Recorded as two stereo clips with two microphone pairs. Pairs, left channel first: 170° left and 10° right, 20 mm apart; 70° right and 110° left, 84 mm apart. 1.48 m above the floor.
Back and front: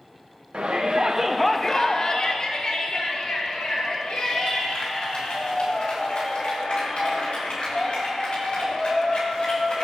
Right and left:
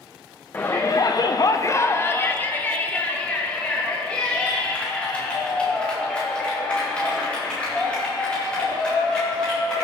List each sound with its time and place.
0.5 s a shout: 10° right, 0.8 m; by 9.8 s 150° right, 8.5 m